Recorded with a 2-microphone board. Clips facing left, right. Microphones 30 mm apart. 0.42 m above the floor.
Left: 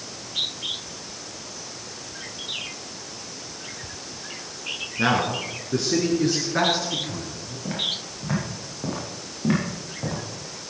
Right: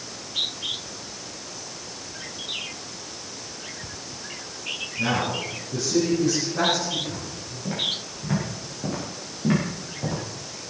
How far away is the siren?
I don't hear a siren.